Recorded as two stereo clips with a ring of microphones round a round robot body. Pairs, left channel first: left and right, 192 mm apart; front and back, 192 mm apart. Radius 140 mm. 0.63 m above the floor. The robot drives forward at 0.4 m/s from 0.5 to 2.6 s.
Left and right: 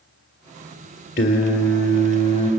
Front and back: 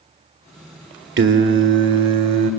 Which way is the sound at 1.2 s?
150° left.